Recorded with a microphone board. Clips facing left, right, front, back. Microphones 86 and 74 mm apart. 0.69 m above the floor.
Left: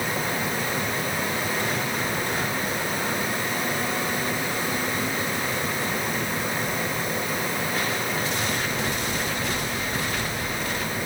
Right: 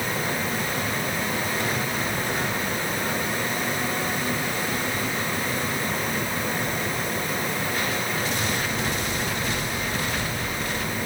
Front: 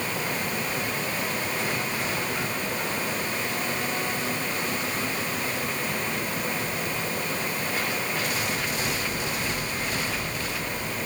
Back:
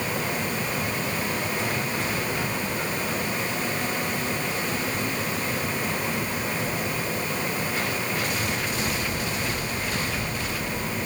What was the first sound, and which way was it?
Only background noise.